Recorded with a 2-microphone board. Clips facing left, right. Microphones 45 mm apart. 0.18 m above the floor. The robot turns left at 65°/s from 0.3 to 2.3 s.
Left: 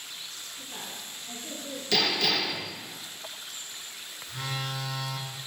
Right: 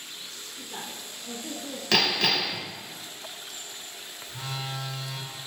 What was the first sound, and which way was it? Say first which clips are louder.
A woman speaking: right 3 dB; 40° right.